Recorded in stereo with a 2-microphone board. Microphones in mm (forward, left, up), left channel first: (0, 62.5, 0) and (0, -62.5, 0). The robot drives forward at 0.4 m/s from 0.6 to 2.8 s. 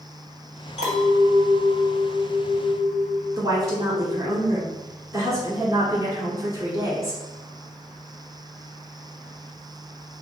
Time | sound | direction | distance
0.8 | a clink | 60° left (ahead or behind) | 1.9 m
3.4 | a woman speaking | 25° right (ahead or behind) | 1.6 m